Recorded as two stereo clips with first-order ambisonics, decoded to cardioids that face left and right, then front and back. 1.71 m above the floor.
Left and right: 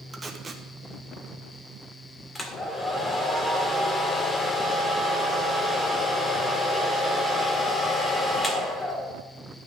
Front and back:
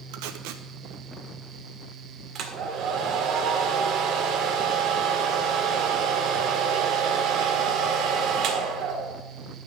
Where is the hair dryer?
160° left, 1.7 m.